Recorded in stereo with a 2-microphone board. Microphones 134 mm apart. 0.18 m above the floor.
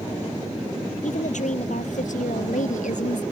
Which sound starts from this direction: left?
A woman speaking, at 1.0 s.